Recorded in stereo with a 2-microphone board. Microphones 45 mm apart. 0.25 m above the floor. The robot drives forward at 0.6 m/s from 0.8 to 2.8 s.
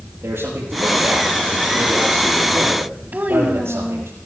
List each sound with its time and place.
0.2 s a man speaking: 65° right (ahead or behind), 6.5 m; by 4.1 s 75° right (ahead or behind), 6.5 m
3.1 s a child speaking: 45° right (ahead or behind), 1.4 m